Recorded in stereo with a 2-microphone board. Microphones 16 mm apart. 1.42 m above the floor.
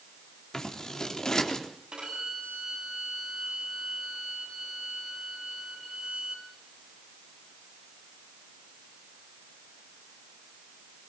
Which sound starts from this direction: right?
A violin, at 1.9 s.